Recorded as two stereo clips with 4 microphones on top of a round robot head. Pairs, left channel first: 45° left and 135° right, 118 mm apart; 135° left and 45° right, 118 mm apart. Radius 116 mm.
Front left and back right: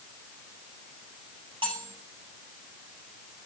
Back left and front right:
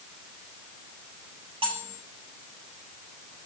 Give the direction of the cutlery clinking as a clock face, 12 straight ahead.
3 o'clock.